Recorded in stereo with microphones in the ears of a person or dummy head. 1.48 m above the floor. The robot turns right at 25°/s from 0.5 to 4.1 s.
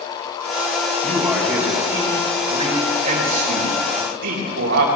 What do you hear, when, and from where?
1.0 s a man speaking: 175° left, 3.5 m; by 4.8 s 110° right, 3.5 m